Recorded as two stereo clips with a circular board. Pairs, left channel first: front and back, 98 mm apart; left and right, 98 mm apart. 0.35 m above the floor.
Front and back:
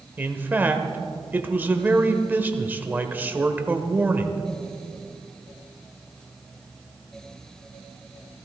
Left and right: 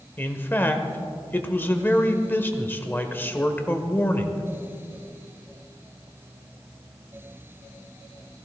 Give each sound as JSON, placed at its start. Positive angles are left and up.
{"t": 0.2, "sound": "a man speaking", "azimuth_deg": 130, "distance_m": 0.9}